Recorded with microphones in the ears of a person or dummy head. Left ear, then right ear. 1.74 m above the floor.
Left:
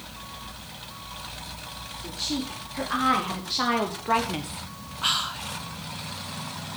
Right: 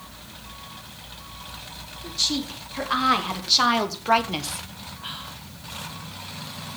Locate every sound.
2.0 s a woman speaking: 35° right (ahead or behind), 4.5 m
5.0 s whispering: 55° left (ahead or behind), 0.7 m